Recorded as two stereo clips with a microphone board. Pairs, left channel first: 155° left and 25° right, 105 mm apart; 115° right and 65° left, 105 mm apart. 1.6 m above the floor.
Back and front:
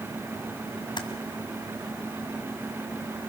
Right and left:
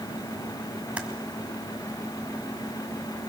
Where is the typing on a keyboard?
140° left, 2.0 m.